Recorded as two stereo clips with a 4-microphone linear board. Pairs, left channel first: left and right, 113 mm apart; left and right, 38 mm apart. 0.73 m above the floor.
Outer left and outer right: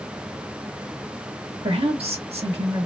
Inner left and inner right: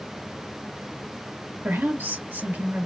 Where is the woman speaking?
60° right (ahead or behind), 1.5 m.